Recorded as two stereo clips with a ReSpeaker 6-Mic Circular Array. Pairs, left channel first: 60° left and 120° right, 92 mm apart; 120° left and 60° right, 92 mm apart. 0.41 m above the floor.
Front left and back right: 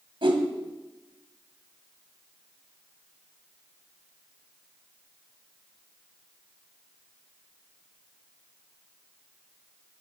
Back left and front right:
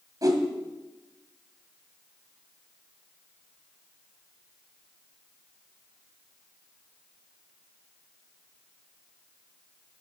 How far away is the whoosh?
About 1.7 m.